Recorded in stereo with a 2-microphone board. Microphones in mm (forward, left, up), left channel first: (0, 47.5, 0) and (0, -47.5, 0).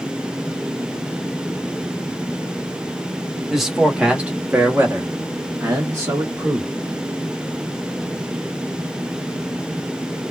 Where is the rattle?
I don't hear a rattle.